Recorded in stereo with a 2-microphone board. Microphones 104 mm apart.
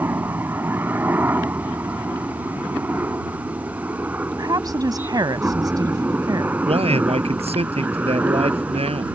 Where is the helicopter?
20° right (ahead or behind); by 9.2 s 15° right (ahead or behind).